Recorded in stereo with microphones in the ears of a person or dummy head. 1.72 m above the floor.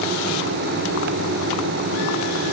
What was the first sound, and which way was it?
Only background noise.